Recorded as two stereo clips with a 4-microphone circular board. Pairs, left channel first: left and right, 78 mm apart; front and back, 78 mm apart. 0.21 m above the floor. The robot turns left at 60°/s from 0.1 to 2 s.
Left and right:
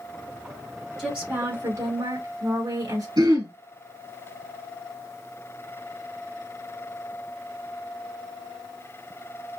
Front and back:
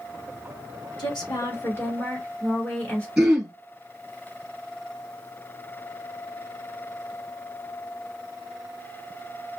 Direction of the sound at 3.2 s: 95° right.